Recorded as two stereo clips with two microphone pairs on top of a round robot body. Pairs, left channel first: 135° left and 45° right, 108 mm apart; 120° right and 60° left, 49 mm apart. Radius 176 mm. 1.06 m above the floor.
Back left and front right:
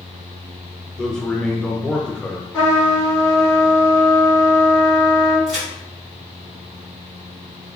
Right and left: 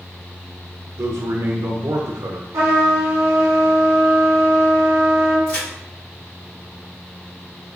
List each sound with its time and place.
1.0 s a man speaking: 55° left, 0.6 m
2.5 s a trumpet: 70° left, 0.6 m
5.5 s a crack: 130° right, 1.5 m